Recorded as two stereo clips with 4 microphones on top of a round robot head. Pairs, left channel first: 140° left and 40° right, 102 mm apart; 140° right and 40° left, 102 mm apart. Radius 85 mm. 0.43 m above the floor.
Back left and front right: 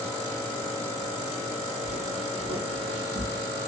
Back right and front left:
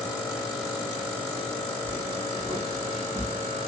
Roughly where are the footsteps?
Ahead right.